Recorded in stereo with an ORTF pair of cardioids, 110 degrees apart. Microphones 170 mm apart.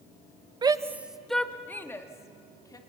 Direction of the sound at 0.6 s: 25° right.